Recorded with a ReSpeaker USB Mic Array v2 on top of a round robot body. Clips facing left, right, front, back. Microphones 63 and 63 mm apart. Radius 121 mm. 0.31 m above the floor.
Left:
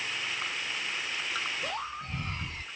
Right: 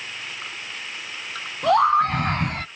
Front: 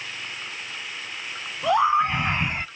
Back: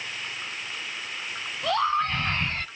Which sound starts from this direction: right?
A scream, at 1.6 s.